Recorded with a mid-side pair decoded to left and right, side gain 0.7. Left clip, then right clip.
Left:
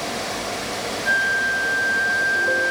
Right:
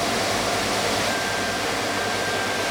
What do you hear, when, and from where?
0.0 s a fan: 15° right, 0.8 m
1.1 s a flute: 65° left, 0.7 m